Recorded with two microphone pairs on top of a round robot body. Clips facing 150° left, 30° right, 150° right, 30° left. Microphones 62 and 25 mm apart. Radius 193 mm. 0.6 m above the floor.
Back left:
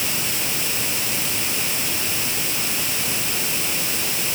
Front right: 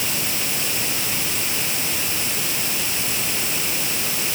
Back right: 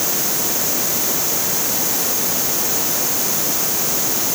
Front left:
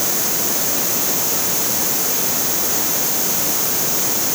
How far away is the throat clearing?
I don't hear throat clearing.